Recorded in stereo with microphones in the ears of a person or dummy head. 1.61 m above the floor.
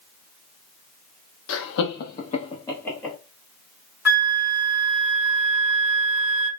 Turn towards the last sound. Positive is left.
turn(degrees=-10)  # may be behind; listen again after turning